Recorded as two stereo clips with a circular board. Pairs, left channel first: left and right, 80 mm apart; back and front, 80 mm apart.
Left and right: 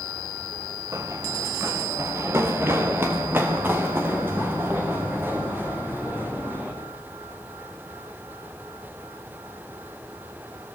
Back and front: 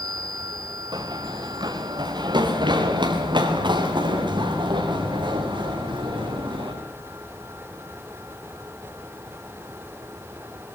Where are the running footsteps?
35° right, 3 m; by 6.7 s 20° right, 9 m.